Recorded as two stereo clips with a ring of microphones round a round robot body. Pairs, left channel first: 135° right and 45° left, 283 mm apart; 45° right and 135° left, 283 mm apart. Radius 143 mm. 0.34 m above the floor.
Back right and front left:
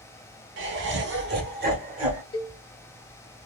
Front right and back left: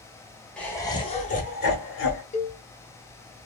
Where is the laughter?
40° left, 1.0 m; by 2.2 s 15° right, 1.3 m.